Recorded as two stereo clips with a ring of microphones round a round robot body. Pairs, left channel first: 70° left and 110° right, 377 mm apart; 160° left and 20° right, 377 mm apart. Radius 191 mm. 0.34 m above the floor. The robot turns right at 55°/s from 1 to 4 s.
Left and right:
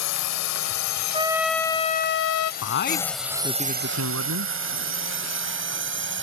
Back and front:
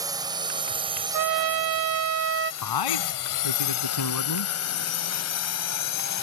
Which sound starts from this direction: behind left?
A man speaking, at 2.6 s.